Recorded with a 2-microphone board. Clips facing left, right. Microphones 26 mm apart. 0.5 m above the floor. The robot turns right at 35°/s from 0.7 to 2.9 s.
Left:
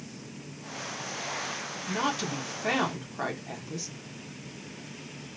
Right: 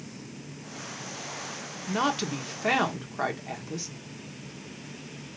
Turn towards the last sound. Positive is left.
turn(degrees=-25)